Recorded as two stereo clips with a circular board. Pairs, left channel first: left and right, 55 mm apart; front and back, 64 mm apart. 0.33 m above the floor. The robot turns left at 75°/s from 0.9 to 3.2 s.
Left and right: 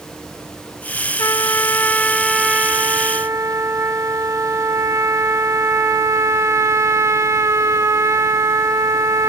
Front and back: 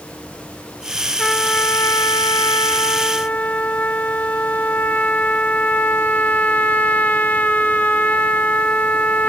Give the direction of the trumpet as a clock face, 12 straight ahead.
9 o'clock.